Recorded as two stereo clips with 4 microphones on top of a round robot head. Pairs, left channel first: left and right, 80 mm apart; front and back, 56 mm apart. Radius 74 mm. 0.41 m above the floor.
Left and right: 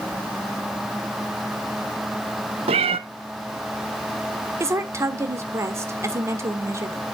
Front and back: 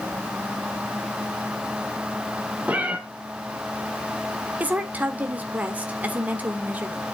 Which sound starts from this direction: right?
A cat meowing, at 2.7 s.